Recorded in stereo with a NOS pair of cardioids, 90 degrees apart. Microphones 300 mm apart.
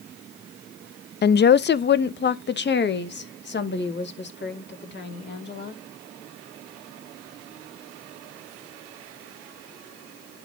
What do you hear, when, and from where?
1.2 s a woman speaking: 35° left, 0.5 m